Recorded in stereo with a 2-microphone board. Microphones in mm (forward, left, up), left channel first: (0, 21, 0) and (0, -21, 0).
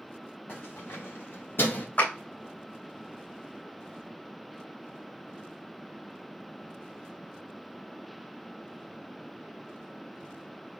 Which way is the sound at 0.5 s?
55° left (ahead or behind).